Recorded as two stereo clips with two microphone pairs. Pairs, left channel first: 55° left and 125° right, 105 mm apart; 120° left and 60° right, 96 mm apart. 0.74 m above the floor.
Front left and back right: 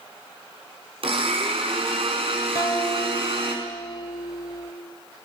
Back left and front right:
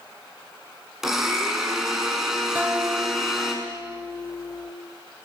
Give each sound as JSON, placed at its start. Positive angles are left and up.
{"t": 1.0, "sound": "a blender", "azimuth_deg": -145, "distance_m": 5.0}
{"t": 2.5, "sound": "a guitar", "azimuth_deg": 10, "distance_m": 1.9}